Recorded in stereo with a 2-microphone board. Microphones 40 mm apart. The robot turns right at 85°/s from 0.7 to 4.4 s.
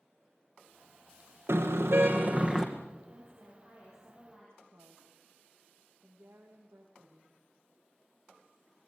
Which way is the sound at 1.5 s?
115° right.